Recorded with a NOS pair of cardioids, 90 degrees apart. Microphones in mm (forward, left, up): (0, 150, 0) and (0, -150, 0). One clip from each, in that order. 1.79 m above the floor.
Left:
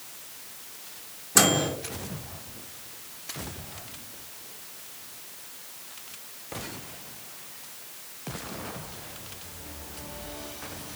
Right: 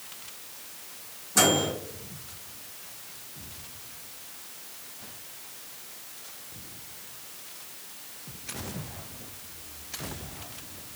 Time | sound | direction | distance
1.4 | a microwave | 45° left | 1.3 m